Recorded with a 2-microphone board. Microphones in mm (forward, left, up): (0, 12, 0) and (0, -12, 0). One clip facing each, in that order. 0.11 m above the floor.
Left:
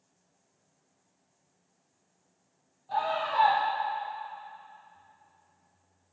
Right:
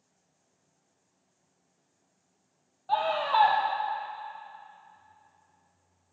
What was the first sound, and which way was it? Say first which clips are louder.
A scream: right 3 dB; 65° right (ahead or behind).